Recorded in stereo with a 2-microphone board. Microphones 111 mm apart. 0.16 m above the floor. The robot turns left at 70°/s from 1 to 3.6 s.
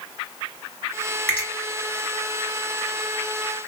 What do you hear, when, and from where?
1.3 s a finger snap: 15° left (ahead or behind), 2 m; by 1.5 s 5° left (ahead or behind), 2 m